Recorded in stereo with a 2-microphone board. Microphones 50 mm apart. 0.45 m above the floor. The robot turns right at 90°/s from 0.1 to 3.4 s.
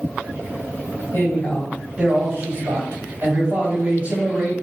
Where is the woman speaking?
125° left, 2.5 m; by 4.5 s 30° right, 2.5 m.